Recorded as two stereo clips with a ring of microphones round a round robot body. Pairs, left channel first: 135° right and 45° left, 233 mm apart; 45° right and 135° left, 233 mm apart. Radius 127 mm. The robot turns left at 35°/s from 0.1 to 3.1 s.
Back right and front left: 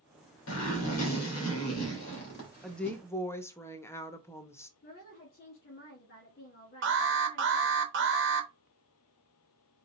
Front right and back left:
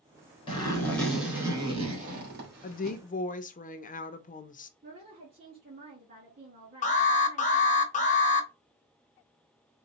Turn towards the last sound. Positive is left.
turn(degrees=10)